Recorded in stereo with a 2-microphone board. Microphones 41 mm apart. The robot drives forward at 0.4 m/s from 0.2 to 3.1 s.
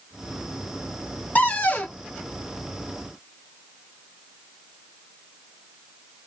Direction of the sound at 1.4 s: 40° left (ahead or behind).